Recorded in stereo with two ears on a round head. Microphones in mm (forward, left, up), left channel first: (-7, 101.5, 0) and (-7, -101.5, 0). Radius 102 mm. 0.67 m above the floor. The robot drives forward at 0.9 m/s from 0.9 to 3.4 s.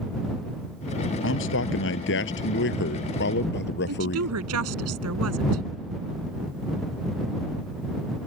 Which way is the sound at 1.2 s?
60° left (ahead or behind).